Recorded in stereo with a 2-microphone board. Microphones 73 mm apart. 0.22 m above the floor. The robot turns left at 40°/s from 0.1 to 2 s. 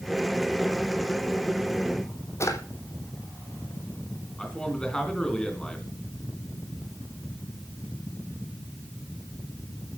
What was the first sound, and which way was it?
A drawer, 40° left (ahead or behind).